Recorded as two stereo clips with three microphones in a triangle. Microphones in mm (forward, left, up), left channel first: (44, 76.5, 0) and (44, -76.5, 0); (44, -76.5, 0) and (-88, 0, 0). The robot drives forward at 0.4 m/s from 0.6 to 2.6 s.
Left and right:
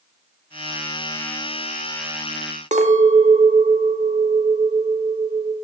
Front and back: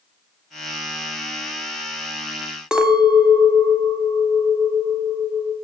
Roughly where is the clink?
Behind right.